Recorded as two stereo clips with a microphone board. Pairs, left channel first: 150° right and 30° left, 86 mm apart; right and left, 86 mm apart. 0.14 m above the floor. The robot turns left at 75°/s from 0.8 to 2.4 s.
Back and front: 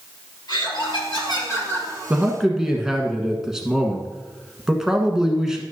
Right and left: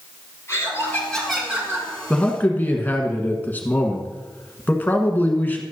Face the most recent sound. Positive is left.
turn(degrees=-45)